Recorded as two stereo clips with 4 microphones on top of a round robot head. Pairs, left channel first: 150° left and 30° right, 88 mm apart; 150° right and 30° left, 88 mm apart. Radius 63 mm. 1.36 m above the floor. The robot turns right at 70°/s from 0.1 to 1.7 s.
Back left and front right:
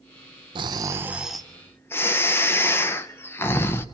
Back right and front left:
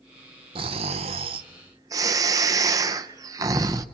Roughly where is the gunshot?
I don't hear a gunshot.